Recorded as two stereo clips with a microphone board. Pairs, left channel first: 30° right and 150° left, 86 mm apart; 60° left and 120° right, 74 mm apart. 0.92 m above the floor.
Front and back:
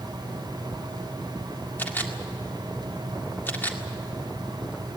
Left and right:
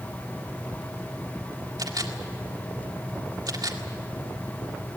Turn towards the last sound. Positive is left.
turn(degrees=-100)